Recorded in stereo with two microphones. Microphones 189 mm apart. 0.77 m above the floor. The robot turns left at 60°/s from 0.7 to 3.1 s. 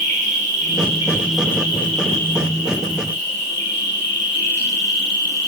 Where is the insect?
140° right, 2.5 m; by 5.5 s 75° left, 2.5 m.